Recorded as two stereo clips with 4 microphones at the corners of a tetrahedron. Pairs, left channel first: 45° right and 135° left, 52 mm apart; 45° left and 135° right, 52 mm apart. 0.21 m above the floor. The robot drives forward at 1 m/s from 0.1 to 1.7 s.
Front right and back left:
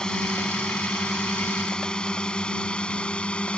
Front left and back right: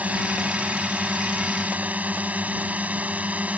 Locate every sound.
0.0 s a drone: 110° right; by 3.6 s 100° right